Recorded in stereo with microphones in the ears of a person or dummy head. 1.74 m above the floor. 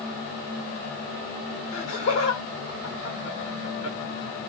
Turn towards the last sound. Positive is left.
turn(degrees=40)  # may be behind; listen again after turning